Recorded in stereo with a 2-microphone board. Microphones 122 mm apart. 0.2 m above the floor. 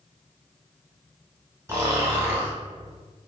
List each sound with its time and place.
1.7 s snoring: 25° right (ahead or behind), 1.3 m